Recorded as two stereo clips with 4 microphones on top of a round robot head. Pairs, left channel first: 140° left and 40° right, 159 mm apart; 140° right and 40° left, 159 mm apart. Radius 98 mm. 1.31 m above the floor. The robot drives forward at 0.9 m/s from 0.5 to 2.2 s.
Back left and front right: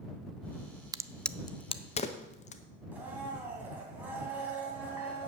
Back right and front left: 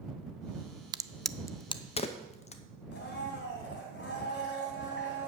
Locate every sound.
0.9 s a crack: 5° left, 0.5 m; by 2.6 s straight behind, 1.0 m
2.9 s a blender: 120° right, 2.5 m